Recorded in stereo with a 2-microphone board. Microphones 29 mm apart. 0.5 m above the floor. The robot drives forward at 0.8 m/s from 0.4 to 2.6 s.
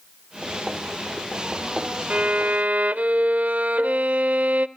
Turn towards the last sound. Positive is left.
turn(degrees=-70)  # may be behind; listen again after turning